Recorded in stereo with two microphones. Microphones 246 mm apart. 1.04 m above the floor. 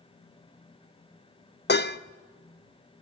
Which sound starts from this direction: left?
Dishes clattering, at 1.7 s.